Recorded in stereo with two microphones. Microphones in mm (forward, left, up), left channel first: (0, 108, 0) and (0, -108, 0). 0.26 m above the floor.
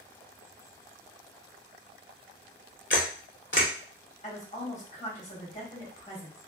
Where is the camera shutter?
60° left (ahead or behind), 0.9 m.